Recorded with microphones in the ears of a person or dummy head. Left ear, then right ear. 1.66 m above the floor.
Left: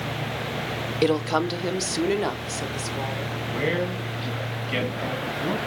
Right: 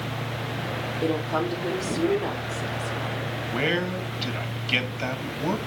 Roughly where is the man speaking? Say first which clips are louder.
Right 1 dB; right.